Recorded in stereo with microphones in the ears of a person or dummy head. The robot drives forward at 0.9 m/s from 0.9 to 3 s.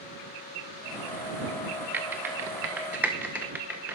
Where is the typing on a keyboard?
10° right (ahead or behind), 0.7 m.